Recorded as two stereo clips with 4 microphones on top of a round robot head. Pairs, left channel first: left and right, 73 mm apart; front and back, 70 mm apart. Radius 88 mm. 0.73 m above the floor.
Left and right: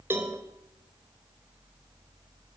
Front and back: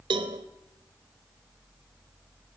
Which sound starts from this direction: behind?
A cowbell, at 0.1 s.